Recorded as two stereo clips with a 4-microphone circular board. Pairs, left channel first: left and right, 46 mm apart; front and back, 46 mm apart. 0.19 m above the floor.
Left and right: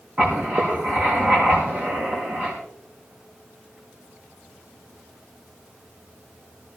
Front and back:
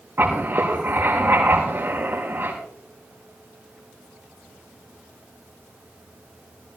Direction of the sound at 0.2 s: 145° right.